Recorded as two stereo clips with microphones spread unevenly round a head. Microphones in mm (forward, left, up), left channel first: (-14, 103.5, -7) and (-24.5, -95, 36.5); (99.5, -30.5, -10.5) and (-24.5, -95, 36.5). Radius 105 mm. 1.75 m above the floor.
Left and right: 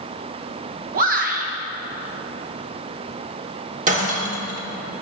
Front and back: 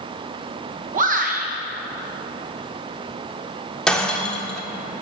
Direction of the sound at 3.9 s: 75° right.